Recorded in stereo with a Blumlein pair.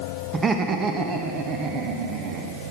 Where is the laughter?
20° right, 1.6 m; by 2.6 s 40° right, 3 m.